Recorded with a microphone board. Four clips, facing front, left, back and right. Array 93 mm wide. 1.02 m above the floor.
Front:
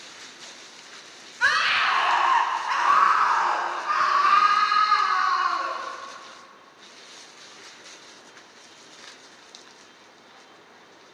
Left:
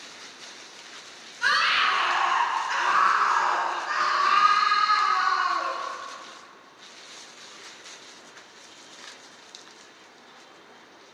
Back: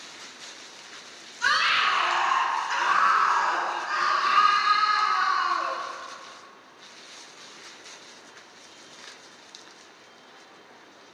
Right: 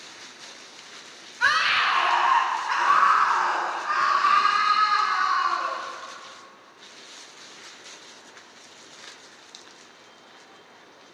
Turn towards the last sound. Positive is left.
turn(degrees=-20)